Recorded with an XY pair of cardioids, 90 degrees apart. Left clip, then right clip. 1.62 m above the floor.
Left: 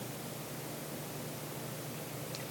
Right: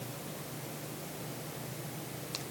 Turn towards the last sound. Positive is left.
No sound to turn to.